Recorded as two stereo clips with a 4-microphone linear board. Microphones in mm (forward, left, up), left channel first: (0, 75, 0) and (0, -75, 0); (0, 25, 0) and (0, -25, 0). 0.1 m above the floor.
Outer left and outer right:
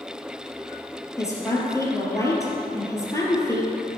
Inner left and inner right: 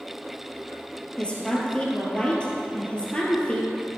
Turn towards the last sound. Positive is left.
turn(degrees=20)  # may be behind; listen again after turning